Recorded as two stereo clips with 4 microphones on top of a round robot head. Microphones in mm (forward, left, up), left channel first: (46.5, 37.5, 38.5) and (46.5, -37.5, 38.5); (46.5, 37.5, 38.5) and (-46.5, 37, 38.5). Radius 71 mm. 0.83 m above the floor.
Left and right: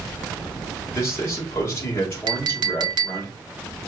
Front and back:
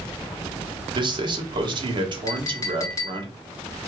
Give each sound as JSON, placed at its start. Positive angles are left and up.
{"t": 0.9, "sound": "a man speaking", "azimuth_deg": 150, "distance_m": 1.8}
{"t": 2.3, "sound": "a clink", "azimuth_deg": -65, "distance_m": 0.6}